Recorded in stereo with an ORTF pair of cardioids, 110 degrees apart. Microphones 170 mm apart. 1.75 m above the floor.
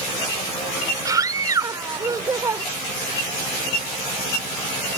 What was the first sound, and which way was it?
A scream, 20° right.